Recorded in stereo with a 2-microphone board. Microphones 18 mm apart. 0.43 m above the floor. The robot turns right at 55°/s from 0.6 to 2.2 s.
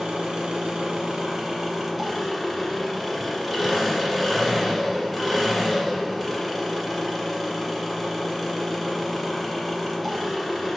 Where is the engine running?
85° right, 1.0 m; by 10.8 s straight ahead, 1.0 m.